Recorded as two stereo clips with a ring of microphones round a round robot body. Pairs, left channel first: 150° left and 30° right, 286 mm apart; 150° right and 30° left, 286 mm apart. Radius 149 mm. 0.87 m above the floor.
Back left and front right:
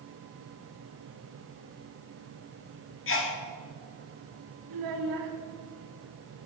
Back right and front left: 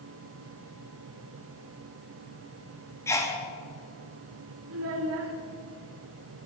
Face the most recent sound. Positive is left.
turn(degrees=-15)